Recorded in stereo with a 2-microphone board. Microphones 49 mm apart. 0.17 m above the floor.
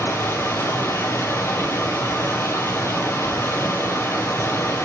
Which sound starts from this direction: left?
Running water, at 0.0 s.